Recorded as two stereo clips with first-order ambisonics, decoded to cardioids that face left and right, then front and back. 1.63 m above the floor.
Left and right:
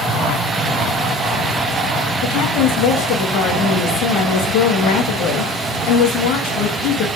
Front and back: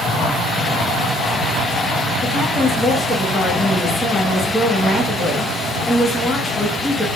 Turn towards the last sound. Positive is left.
turn(degrees=85)